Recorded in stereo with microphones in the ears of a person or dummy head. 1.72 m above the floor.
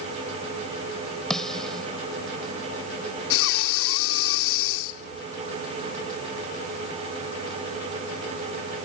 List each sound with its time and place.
1.3 s a snare drum: 5° left (ahead or behind)
3.3 s breathing: 80° left